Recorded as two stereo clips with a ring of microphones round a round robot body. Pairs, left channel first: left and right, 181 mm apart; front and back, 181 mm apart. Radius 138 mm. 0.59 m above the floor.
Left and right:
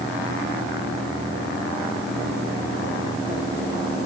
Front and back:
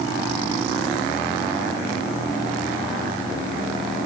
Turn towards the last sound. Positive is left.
No sound to turn to.